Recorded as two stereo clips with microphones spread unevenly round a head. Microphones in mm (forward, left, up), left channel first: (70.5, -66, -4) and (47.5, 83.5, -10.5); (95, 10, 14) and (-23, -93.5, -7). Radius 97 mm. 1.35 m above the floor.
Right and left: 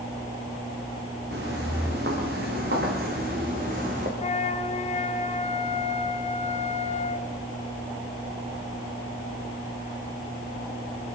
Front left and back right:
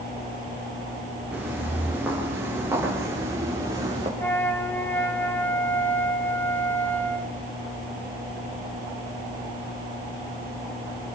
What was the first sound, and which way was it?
Footsteps, 135° left.